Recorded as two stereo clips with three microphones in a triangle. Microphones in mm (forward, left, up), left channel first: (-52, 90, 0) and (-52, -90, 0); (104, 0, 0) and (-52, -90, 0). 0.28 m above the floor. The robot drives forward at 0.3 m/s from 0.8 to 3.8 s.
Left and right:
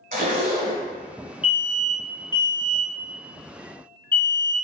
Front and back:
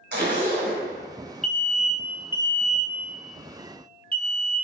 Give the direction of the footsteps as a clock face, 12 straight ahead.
No footsteps in this recording.